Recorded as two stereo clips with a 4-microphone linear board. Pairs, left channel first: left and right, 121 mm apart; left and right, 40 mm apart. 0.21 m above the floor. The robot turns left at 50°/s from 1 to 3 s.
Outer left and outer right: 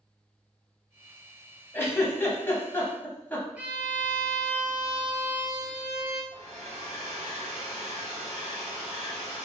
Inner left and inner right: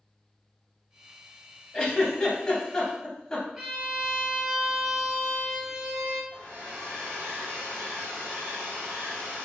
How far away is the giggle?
About 0.6 m.